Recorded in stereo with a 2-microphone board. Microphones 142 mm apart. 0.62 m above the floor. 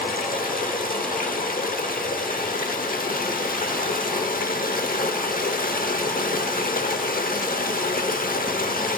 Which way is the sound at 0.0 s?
80° left.